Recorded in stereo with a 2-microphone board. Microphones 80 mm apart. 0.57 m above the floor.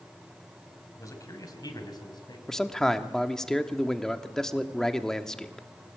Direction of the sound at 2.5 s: 5° left (ahead or behind).